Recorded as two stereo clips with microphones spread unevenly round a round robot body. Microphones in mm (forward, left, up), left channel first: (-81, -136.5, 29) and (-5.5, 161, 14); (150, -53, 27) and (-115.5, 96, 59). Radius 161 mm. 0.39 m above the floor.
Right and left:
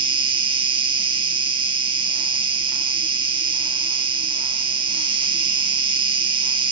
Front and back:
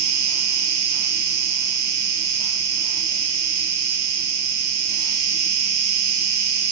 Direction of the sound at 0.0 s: 150° left.